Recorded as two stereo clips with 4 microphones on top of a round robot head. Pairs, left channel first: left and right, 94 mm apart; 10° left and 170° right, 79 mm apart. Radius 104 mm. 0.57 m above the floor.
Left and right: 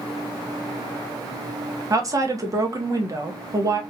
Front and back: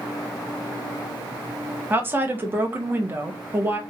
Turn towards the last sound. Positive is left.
turn(degrees=-120)